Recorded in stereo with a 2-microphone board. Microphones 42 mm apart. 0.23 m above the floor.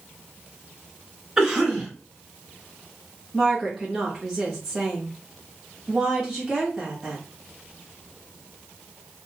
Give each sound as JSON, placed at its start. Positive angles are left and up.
{"t": 1.4, "sound": "a cough", "side_deg": -10, "distance_m": 1.5}
{"t": 3.3, "sound": "a woman speaking", "side_deg": 5, "distance_m": 1.3}